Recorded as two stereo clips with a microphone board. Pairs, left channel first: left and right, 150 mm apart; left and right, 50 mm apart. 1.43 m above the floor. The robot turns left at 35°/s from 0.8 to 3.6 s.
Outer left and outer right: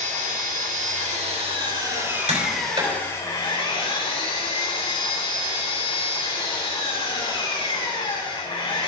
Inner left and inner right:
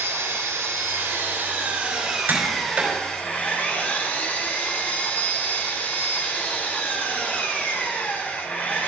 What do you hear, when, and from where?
0.0 s an engine running: 115° right, 4 m; by 8.9 s 145° left, 4 m
2.3 s tapping: 50° right (ahead or behind), 4.5 m; by 3.0 s 25° right (ahead or behind), 4.5 m